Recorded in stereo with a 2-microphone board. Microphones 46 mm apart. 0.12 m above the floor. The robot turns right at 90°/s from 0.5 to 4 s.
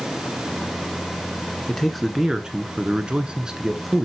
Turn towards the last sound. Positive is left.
turn(degrees=0)  # may be behind; listen again after turning